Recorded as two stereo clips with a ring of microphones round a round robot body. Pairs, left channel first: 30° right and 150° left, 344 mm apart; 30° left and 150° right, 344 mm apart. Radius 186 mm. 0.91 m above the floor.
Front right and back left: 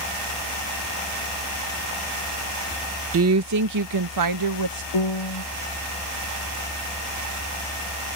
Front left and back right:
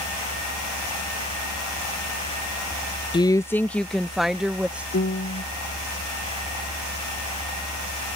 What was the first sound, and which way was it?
A woman speaking, 105° left.